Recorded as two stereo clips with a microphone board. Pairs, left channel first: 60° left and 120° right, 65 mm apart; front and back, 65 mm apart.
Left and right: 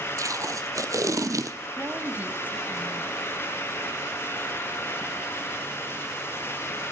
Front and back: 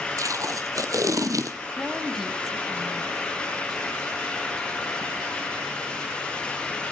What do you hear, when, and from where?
0.2 s tape being pulled: 150° right, 1.0 m
1.8 s a woman speaking: 90° right, 1.1 m